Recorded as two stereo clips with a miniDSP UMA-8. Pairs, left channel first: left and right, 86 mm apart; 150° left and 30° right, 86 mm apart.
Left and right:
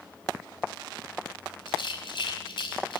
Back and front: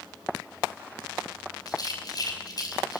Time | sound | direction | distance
1.7 | a rattle | 110° left | 5 m